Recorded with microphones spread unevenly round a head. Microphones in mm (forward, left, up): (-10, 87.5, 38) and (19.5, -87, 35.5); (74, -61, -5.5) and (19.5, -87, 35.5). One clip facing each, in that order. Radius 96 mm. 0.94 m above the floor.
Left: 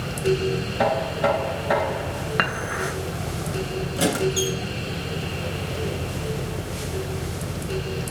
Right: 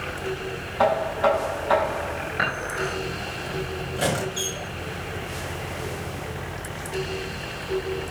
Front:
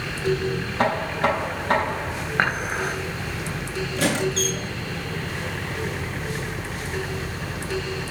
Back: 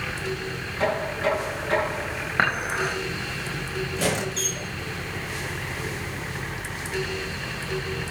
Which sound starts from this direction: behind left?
Dishes clattering, at 2.4 s.